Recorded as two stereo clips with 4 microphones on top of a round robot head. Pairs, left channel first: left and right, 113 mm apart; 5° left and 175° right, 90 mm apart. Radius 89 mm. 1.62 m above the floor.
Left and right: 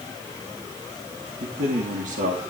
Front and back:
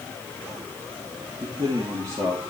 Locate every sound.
1.4 s a man speaking: 120° right, 3 m; by 2.4 s 100° right, 3 m